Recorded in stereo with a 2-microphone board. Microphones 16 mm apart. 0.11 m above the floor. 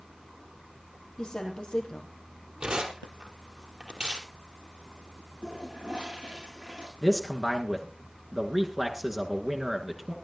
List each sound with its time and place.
1.2 s a woman speaking: 55° left (ahead or behind), 4.5 m
2.6 s tearing paper: 55° right (ahead or behind), 3.5 m
5.4 s a toilet flushing: 85° right, 8 m
7.0 s a man speaking: 15° right (ahead or behind), 1.6 m